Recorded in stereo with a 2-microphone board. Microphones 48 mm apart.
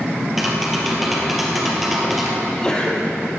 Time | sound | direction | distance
0.4 | tapping | 5° right (ahead or behind) | 3.5 m
2.4 | a sneeze | 15° left (ahead or behind) | 4 m